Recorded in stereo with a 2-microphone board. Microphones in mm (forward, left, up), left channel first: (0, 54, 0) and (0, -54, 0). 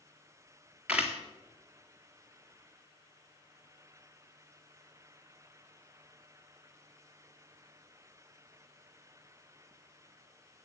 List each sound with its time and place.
0.9 s a camera shutter: 10° right (ahead or behind), 2 m